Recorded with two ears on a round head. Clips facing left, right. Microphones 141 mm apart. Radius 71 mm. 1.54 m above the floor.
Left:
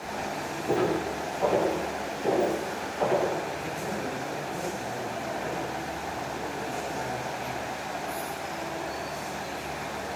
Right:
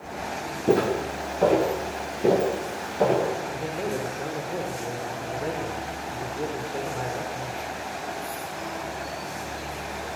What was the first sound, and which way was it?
Footsteps, 50° right (ahead or behind).